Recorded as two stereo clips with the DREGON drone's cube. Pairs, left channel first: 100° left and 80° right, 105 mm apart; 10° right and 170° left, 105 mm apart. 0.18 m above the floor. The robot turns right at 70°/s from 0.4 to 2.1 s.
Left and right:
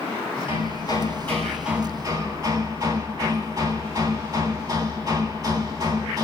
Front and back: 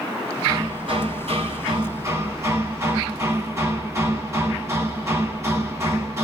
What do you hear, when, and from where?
0.5 s hammering: 115° left, 1.7 m; by 6.2 s 130° right, 1.7 m